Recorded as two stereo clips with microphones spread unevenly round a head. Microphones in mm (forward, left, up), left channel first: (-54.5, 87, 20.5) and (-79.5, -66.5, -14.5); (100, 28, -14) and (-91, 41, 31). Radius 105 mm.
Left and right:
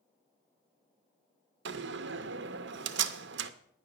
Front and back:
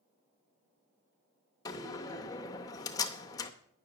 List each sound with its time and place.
1.6 s a door slam: 80° right, 0.5 m